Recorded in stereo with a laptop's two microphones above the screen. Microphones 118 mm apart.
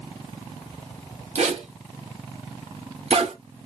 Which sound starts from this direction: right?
A zipper, at 1.4 s.